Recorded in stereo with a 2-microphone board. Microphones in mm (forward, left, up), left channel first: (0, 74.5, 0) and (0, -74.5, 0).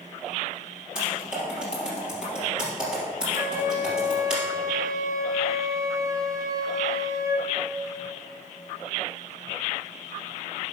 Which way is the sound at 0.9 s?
5° right (ahead or behind).